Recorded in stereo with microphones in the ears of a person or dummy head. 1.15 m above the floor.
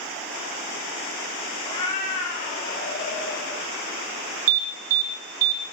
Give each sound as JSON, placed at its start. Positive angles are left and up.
{"t": 1.6, "sound": "a cat meowing", "side_deg": 25, "distance_m": 1.8}
{"t": 4.5, "sound": "an alarm", "side_deg": -50, "distance_m": 3.0}